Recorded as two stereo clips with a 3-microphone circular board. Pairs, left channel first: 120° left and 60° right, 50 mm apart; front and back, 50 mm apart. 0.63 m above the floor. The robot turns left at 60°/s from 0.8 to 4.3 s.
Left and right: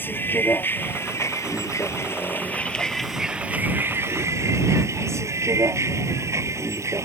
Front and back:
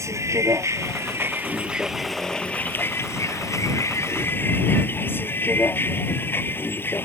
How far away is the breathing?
I don't hear breathing.